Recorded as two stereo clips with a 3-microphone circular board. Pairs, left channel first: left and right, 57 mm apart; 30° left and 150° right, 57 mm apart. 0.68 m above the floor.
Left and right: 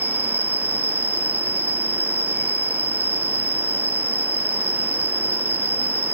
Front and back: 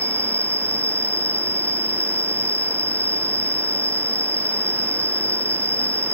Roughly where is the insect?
Ahead right.